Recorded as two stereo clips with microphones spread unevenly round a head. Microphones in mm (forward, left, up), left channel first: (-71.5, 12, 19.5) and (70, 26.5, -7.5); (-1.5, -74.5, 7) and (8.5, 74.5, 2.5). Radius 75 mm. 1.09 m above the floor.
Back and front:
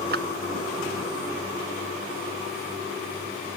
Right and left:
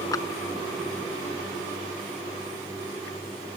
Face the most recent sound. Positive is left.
turn(degrees=-25)